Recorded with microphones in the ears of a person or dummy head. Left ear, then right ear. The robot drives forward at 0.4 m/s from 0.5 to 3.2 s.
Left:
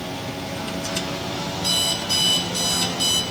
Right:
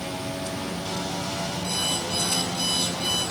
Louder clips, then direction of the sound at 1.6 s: Left 7 dB; 90° left.